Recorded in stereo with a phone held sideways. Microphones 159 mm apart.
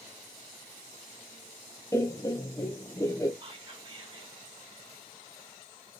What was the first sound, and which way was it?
Laughter, 20° left (ahead or behind).